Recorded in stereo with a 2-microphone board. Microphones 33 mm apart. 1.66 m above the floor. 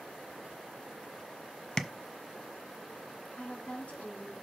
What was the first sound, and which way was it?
Tapping, 20° left (ahead or behind).